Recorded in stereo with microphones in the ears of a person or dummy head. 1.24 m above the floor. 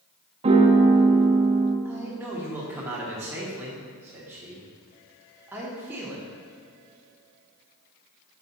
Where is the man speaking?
10° right (ahead or behind), 1.4 m.